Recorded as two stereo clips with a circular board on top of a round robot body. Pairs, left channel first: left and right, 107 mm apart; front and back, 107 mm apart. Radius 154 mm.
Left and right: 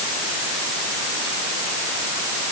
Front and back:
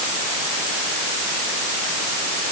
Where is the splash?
No splash in this recording.